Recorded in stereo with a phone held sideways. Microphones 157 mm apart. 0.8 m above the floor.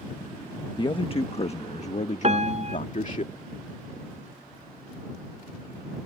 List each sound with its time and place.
0.8 s a man speaking: 30° left (ahead or behind); by 3.2 s 50° left (ahead or behind)
2.2 s a piano: 45° right (ahead or behind)